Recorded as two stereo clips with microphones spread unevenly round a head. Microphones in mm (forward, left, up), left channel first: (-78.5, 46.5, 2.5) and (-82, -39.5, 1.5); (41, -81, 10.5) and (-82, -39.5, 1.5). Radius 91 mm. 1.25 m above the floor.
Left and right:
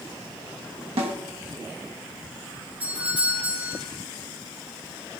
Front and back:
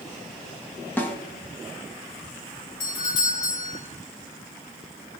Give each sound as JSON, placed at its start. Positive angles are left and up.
{"t": 1.0, "sound": "a snare drum", "azimuth_deg": -95, "distance_m": 1.4}
{"t": 2.8, "sound": "a doorbell", "azimuth_deg": -20, "distance_m": 2.0}